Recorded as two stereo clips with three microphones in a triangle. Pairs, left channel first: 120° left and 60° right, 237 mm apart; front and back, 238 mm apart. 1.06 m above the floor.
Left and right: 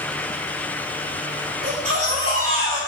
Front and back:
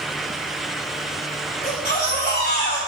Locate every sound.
1.6 s a baby crying: 45° right, 3.5 m